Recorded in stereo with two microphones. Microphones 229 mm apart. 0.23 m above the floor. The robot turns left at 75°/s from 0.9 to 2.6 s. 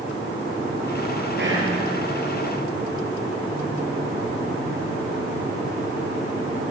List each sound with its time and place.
1.4 s whispering: 50° right (ahead or behind), 6 m; by 1.8 s 75° right (ahead or behind), 6 m